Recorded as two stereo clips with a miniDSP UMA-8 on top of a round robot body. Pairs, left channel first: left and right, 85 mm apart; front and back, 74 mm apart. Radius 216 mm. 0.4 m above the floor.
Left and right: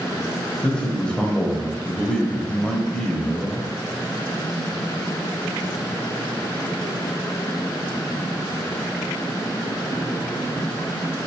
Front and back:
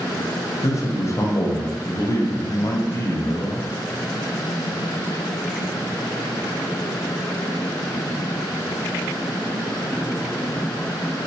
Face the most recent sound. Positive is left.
turn(degrees=15)